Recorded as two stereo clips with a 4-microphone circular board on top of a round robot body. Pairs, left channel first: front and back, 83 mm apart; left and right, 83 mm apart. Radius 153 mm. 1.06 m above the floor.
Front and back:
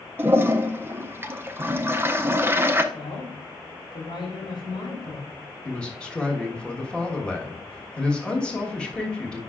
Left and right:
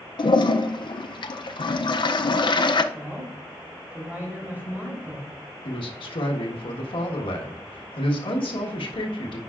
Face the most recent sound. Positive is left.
turn(degrees=80)